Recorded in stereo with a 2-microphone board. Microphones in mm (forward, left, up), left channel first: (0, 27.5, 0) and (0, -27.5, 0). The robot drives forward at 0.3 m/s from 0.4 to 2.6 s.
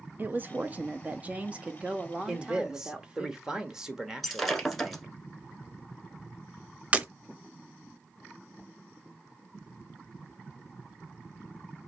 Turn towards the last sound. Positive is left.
turn(degrees=-25)  # may be behind; listen again after turning